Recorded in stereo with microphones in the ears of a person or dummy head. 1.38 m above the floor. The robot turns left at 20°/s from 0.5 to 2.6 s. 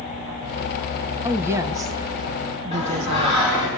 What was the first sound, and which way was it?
A woman speaking, 10° right (ahead or behind).